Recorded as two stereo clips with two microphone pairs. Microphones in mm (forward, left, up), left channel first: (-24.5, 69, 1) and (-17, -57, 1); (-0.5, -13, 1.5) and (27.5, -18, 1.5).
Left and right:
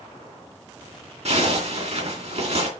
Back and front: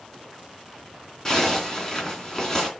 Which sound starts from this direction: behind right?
A zipper, at 1.2 s.